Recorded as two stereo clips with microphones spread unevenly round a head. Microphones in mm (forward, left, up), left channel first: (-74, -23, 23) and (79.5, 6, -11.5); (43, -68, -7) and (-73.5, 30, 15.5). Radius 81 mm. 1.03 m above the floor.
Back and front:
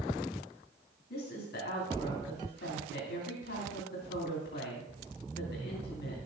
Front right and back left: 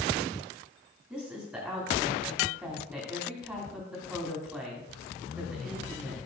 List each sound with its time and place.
1.1 s a woman speaking: 140° right, 3 m